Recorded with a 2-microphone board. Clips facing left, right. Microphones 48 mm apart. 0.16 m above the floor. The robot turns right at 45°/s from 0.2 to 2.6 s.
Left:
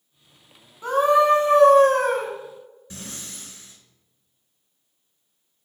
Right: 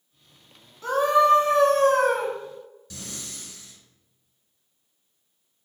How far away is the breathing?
About 0.8 m.